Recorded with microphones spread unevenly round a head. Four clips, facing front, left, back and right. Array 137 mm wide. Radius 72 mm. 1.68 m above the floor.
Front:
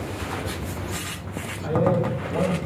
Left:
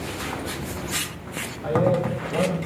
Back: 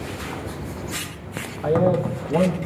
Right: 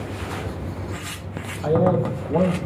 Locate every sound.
1.6 s a man speaking: 140° right, 2 m